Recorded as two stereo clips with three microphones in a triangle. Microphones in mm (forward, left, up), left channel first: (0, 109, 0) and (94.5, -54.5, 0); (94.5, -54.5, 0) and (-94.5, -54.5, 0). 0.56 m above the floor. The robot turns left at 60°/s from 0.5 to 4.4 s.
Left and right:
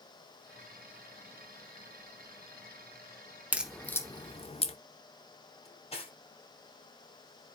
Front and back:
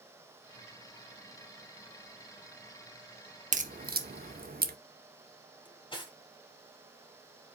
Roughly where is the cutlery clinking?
Ahead left.